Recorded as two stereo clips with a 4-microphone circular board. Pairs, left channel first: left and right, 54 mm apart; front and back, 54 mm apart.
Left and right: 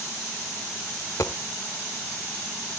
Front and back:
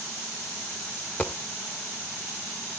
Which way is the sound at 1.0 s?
65° left.